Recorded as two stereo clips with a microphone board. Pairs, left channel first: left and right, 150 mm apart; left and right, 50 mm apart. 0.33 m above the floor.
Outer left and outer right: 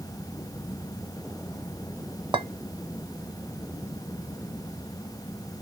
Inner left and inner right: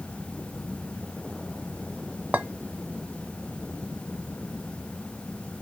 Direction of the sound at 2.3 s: 35° right (ahead or behind).